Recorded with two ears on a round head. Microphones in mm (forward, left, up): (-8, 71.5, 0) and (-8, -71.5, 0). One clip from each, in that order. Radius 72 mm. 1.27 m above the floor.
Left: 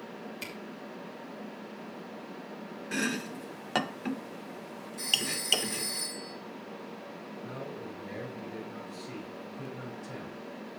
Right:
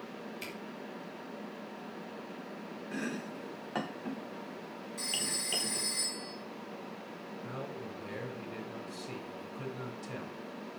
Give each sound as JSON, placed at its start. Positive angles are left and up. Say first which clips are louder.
{"t": 0.4, "sound": "a camera shutter", "louder": "left 3 dB", "side_deg": 5, "distance_m": 2.5}
{"t": 2.9, "sound": "chopping", "louder": "left 7 dB", "side_deg": 65, "distance_m": 0.6}
{"t": 5.0, "sound": "a phone ringing", "louder": "left 6 dB", "side_deg": -20, "distance_m": 6.0}
{"t": 7.4, "sound": "a man speaking", "louder": "left 1 dB", "side_deg": -75, "distance_m": 3.5}